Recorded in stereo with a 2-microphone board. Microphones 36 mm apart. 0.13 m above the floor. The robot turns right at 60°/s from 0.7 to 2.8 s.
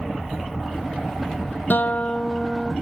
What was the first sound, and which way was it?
A guitar, 105° left.